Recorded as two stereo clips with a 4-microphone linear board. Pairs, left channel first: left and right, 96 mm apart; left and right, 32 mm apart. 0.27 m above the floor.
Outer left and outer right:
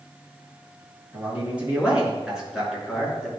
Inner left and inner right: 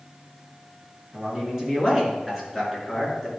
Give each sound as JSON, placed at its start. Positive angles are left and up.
{"t": 1.1, "sound": "a man speaking", "side_deg": -15, "distance_m": 4.0}